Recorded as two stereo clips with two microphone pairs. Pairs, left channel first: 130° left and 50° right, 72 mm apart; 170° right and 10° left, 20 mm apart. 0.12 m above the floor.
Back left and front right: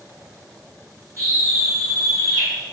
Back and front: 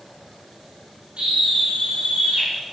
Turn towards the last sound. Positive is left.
turn(degrees=-25)